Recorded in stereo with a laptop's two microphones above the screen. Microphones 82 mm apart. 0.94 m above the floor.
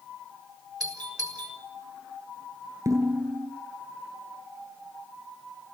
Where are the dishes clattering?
45° right (ahead or behind), 9 m.